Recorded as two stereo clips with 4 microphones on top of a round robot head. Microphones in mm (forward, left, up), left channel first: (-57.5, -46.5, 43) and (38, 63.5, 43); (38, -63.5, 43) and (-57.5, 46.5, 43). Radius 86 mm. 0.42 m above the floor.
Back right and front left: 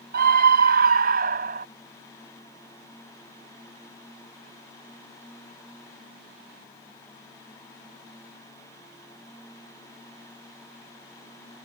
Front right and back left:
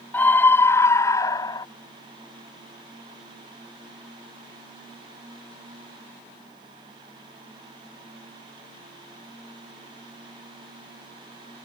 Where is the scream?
30° left; by 1.7 s 20° left.